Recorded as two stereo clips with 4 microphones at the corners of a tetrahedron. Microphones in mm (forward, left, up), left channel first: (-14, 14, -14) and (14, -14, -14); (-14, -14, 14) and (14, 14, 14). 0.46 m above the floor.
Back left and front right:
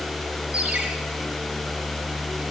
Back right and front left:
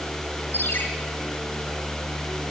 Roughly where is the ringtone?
Right.